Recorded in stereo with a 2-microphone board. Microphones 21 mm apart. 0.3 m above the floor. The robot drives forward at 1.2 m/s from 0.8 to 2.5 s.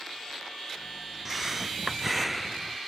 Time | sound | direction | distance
1.2 | breathing | 15° right (ahead or behind) | ?